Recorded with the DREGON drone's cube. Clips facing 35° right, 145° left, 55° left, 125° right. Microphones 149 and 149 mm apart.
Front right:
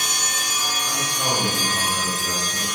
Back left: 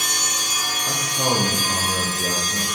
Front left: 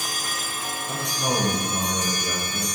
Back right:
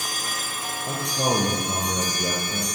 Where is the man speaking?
150° right, 9.5 m.